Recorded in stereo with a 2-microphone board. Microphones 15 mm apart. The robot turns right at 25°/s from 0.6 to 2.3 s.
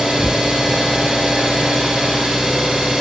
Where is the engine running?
110° right, 3.5 m; by 3.0 s 70° right, 3.5 m.